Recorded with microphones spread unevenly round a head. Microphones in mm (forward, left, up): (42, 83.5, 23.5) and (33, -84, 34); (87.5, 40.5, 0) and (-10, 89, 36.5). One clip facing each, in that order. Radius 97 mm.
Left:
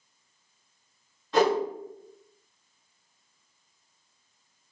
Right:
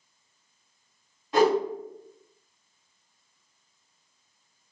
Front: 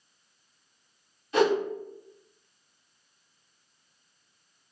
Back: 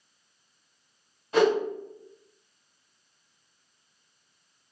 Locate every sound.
1.3 s a whoosh: 170° right, 2.0 m